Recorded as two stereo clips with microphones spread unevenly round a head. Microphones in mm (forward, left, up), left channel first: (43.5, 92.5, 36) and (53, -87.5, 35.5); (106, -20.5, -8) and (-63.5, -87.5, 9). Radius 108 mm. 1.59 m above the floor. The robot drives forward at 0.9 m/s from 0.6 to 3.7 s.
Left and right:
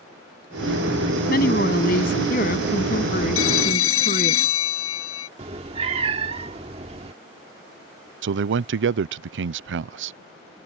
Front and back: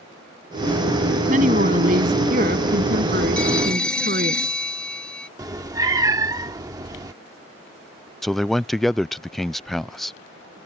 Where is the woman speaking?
145° left; by 4.3 s 150° left.